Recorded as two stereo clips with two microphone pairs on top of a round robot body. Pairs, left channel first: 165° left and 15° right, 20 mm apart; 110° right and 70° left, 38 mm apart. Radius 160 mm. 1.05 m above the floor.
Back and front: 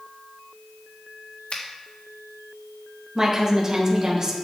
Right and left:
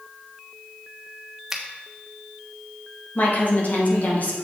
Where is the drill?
I don't hear a drill.